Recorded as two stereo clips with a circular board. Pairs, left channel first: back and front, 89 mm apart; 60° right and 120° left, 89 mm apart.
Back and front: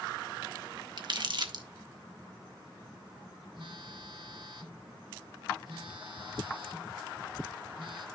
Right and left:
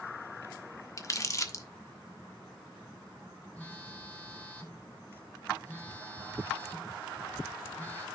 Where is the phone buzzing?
10° left, 3 m.